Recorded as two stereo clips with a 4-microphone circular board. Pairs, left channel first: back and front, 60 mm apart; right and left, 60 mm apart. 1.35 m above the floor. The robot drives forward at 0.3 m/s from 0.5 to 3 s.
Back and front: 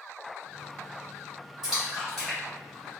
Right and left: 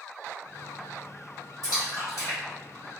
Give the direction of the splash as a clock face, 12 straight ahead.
3 o'clock.